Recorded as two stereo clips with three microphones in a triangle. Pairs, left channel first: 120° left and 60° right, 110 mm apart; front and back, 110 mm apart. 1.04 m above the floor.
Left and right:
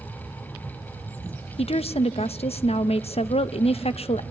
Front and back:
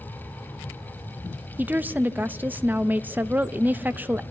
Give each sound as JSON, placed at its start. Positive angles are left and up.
{"t": 1.6, "sound": "a woman speaking", "azimuth_deg": 105, "distance_m": 0.6}